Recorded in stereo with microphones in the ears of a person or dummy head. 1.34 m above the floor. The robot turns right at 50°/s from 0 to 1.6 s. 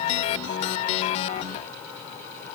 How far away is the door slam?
No door slam in this recording.